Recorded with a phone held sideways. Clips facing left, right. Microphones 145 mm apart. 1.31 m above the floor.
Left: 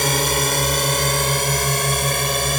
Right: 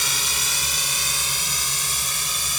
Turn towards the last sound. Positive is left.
turn(degrees=65)  # may be behind; listen again after turning